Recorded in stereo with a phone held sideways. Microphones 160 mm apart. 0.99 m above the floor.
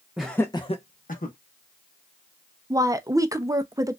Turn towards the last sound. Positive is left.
turn(degrees=-20)  # may be behind; listen again after turning